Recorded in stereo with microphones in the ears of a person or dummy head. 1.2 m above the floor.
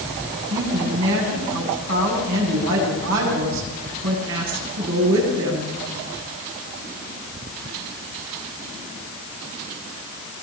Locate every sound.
0.5 s a woman speaking: 75° right (ahead or behind), 9.5 m